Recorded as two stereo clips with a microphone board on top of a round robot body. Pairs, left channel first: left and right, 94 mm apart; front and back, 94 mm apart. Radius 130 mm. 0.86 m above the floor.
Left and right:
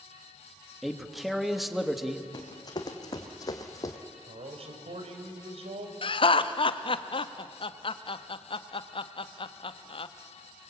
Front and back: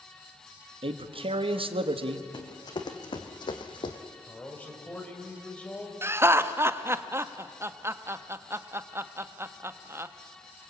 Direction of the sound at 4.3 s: 75° right.